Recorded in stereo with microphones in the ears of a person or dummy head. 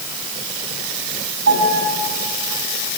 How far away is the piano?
About 9.5 m.